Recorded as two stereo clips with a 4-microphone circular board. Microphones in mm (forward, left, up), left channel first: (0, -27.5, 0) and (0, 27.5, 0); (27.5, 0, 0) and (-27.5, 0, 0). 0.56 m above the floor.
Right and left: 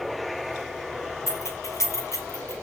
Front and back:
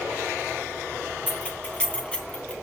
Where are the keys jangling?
70° right, 3.5 m.